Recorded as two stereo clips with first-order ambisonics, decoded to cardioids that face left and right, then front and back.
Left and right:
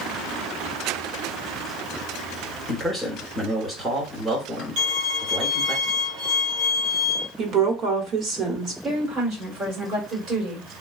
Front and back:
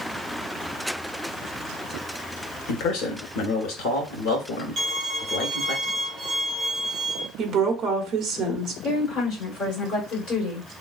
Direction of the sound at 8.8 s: 50° right.